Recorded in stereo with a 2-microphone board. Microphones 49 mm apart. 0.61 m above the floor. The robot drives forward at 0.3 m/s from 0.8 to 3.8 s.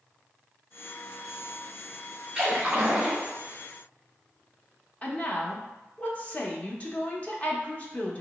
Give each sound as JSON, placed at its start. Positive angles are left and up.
{"t": 2.4, "sound": "a splash", "side_deg": -20, "distance_m": 1.1}
{"t": 5.0, "sound": "a woman speaking", "side_deg": 30, "distance_m": 0.7}